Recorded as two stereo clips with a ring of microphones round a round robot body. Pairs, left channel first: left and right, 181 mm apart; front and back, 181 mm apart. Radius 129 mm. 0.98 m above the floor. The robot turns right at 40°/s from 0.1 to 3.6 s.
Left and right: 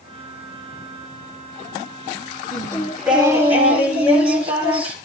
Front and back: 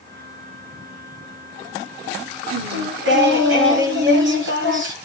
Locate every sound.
2.5 s singing: 160° left, 1.7 m; by 5.0 s 155° right, 1.7 m